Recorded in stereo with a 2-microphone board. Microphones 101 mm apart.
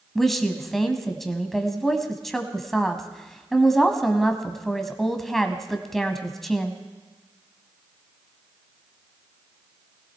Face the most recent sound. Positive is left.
turn(degrees=0)  # may be behind; listen again after turning